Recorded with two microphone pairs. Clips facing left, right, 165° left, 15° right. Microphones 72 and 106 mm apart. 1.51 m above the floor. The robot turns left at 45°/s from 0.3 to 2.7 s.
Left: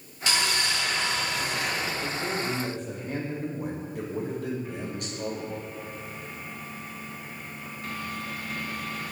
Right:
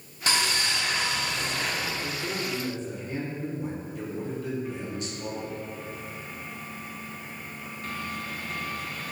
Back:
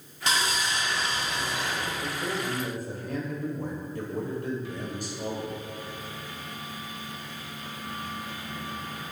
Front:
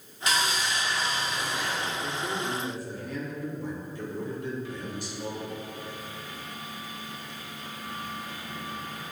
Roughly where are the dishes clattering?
No dishes clattering in this recording.